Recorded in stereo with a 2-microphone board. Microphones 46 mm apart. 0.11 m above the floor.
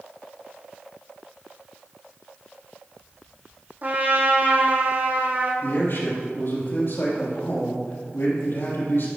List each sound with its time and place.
3.8 s a trumpet: 45° right (ahead or behind), 1.8 m
5.6 s a man speaking: 60° left (ahead or behind), 3.5 m